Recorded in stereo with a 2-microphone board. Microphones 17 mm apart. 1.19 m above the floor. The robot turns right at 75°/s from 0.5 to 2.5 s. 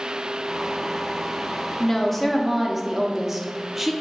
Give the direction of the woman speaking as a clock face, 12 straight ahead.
7 o'clock.